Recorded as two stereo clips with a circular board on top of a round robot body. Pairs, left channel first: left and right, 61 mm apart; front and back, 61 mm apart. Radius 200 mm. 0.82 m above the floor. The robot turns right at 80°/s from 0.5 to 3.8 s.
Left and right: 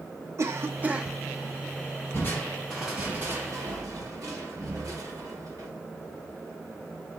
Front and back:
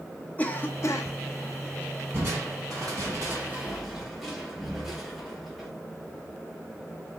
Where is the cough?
60° right, 1.2 m; by 1.1 s 10° right, 1.2 m.